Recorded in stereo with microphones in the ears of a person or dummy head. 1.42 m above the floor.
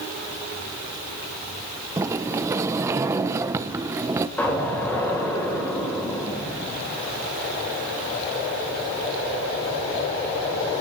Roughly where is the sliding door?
Centre.